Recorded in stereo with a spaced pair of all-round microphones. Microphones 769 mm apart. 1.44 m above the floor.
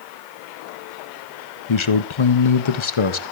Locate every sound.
1.7 s a man speaking: 40° left (ahead or behind), 0.6 m